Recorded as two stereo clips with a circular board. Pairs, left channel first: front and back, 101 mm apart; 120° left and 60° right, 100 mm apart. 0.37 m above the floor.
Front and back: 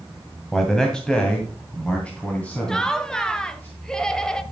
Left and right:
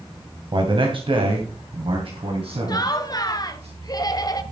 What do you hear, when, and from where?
0.5 s a man speaking: 85° right, 2 m; by 3.7 s 70° right, 3.5 m
2.7 s laughter: 80° left, 1.4 m